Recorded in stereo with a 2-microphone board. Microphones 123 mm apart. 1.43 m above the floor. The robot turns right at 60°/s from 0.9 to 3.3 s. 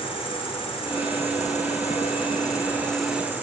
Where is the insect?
55° left, 3.5 m; by 3.4 s 165° right, 3.5 m.